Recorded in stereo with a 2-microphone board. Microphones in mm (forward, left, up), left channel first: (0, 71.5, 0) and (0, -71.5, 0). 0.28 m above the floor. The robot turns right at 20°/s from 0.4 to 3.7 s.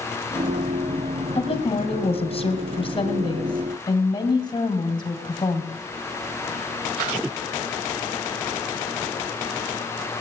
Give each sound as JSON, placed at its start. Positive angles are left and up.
{"t": 1.4, "sound": "a woman speaking", "azimuth_deg": 85, "distance_m": 2.0}